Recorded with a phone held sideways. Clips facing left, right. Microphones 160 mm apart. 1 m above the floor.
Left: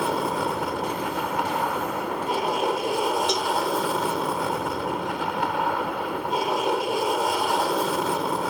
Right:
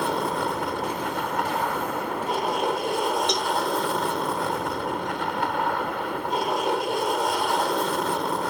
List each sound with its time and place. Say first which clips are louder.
0.0 s an aircraft: left 1 dB; 5° left (ahead or behind)
3.3 s a cowbell: left 1 dB; 5° left (ahead or behind)